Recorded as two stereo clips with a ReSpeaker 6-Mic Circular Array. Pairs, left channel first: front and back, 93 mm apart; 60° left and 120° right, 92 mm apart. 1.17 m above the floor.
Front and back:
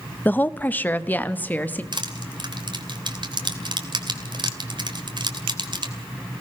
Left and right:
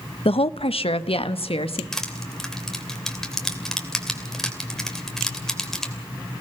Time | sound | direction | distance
0.2 | a woman speaking | 70° left | 0.7 m
1.9 | crushing | 145° left | 2.5 m